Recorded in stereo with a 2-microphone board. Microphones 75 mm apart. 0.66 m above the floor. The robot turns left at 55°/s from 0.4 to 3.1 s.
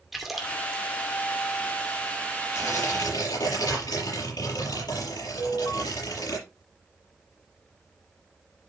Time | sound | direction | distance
0.1 | a splash | 5° right (ahead or behind) | 2 m
2.5 | tearing paper | 140° left | 7 m
5.4 | an alarm | 70° left (ahead or behind) | 4.5 m